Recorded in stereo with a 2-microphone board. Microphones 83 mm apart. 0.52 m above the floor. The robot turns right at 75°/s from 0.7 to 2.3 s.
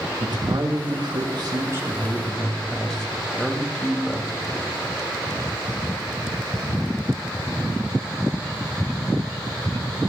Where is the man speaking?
115° right, 2.5 m; by 4.7 s 5° left, 2.5 m.